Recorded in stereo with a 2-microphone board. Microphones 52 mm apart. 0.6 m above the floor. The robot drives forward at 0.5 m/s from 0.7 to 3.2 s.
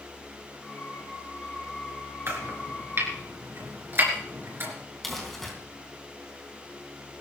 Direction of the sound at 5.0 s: Centre (ahead or behind).